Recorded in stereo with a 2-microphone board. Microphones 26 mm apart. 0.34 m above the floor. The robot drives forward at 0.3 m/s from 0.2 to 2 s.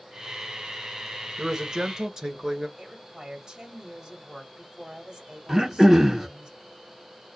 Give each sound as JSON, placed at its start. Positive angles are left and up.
{"t": 1.4, "sound": "a man speaking", "side_deg": -25, "distance_m": 1.2}
{"t": 2.8, "sound": "a woman speaking", "side_deg": -30, "distance_m": 1.4}
{"t": 5.5, "sound": "throat clearing", "side_deg": -15, "distance_m": 0.9}